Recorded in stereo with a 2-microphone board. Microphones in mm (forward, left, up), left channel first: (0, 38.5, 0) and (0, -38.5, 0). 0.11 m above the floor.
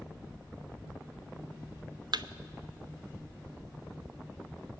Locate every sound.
2.1 s a thud: 70° right (ahead or behind), 0.7 m